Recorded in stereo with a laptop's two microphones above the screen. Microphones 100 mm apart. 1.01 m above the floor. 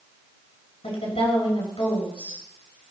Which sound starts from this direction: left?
A woman speaking, at 0.8 s.